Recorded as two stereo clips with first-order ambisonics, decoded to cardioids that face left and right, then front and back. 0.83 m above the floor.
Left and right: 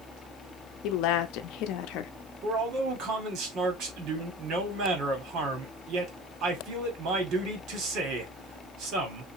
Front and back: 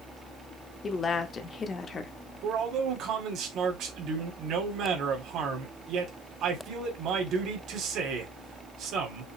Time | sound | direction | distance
0.8 | a woman speaking | 70° left | 0.8 m
2.4 | a man speaking | 135° right | 2 m